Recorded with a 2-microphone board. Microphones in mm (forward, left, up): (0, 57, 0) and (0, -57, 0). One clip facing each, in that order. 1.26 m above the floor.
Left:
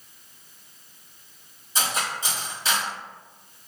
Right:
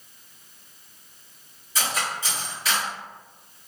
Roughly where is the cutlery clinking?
Left.